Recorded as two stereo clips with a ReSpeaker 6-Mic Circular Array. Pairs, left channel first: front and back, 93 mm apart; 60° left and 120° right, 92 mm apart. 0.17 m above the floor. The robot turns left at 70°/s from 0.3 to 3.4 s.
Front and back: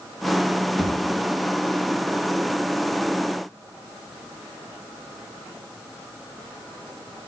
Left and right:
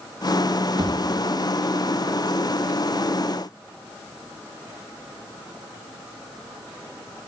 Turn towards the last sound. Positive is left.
turn(degrees=95)